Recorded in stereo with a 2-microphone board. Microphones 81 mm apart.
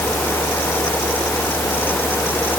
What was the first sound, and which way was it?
Only background noise.